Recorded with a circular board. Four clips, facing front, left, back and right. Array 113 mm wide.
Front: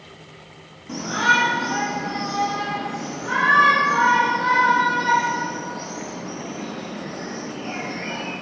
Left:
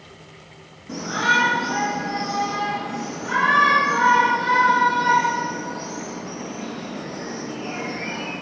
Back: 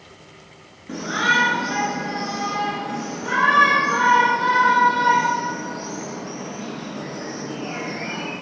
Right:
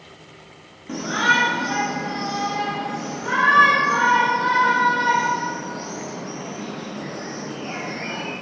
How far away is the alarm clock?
I don't hear an alarm clock.